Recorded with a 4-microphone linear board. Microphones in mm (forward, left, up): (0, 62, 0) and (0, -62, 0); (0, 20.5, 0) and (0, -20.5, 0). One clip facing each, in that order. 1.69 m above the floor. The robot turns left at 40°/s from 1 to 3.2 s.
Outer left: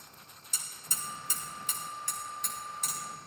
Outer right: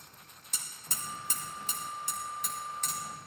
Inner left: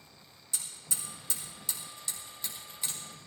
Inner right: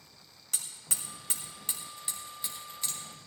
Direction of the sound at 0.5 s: 60° right (ahead or behind).